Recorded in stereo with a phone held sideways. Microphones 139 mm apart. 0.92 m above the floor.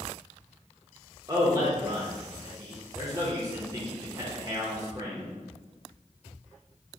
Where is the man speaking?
25° right (ahead or behind), 0.7 m.